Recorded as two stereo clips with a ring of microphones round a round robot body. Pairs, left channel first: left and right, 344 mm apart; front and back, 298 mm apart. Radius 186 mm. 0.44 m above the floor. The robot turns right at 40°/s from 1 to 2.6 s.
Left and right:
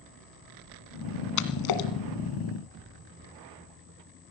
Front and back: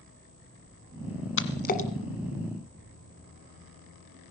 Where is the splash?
50° left, 1.5 m; by 1.9 s 70° left, 1.5 m.